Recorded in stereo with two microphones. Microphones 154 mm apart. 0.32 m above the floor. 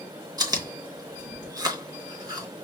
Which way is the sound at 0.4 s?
25° right (ahead or behind).